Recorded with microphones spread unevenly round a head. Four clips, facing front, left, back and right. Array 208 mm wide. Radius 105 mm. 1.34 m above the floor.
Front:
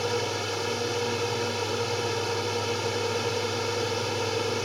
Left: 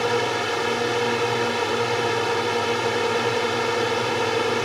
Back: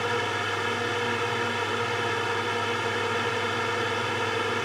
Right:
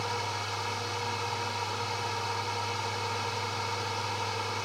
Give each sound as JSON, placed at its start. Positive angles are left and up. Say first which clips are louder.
{"t": 0.0, "sound": "a drone", "louder": "left 11 dB, back 1 dB", "azimuth_deg": 90}